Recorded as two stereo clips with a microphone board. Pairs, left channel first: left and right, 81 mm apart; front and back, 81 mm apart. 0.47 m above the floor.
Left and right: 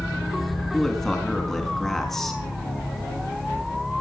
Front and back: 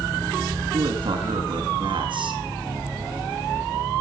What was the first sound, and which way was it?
A man speaking, 175° left.